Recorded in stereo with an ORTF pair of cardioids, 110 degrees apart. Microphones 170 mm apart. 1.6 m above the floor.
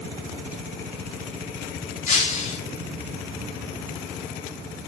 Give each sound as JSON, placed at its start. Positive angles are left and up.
{"t": 2.1, "sound": "breaking glass", "azimuth_deg": 50, "distance_m": 2.5}